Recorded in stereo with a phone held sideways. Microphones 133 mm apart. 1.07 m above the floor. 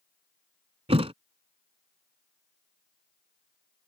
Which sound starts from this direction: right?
A thud, at 0.9 s.